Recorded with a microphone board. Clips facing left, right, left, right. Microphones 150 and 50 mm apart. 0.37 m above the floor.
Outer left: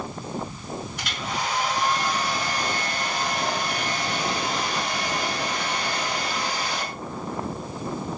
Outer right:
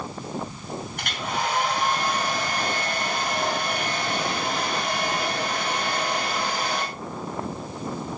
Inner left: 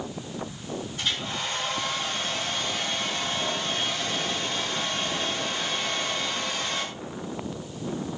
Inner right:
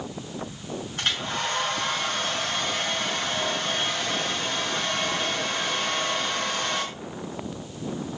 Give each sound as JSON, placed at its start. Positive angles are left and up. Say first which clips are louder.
{"t": 1.0, "sound": "a hair dryer", "louder": "outer right 4 dB, inner right 4 dB", "side_deg": -55, "distance_m": 6.0}